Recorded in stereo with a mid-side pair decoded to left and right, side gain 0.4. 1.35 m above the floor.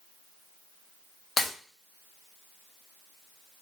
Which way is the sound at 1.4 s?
70° left.